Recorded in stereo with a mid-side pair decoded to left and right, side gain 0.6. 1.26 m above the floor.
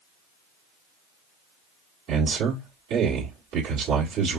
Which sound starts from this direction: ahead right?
A man speaking, at 2.1 s.